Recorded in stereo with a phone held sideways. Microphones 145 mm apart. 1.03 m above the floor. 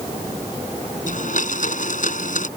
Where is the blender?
65° left (ahead or behind).